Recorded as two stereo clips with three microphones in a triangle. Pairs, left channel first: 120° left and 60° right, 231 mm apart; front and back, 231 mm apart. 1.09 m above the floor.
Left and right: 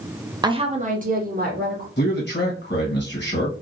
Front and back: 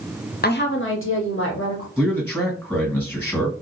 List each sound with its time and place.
0.4 s a woman speaking: 5° left, 0.5 m; by 1.9 s 15° right, 1.4 m
2.0 s a man speaking: 80° left, 1.4 m